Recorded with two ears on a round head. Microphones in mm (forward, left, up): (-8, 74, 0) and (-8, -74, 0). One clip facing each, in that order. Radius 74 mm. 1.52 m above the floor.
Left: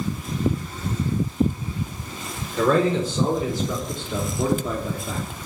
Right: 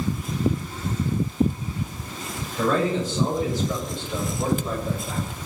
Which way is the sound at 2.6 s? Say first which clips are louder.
Left 3 dB; 60° left (ahead or behind).